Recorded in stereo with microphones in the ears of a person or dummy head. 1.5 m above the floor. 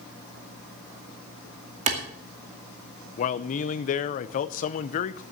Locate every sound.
1.9 s a clap: 40° right (ahead or behind), 2.5 m
3.2 s a man speaking: 40° left (ahead or behind), 0.7 m